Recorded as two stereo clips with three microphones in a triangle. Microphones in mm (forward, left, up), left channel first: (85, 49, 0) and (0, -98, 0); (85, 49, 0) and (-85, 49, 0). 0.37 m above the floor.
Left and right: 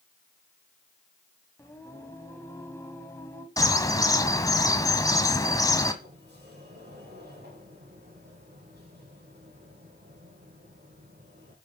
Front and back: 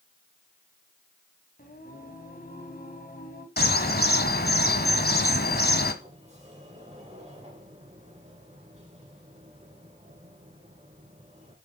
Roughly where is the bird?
Ahead.